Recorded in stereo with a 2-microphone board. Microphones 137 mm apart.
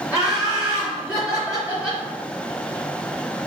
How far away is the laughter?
About 0.9 m.